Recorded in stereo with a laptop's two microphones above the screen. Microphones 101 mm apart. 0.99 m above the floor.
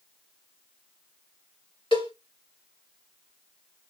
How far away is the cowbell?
About 1.9 m.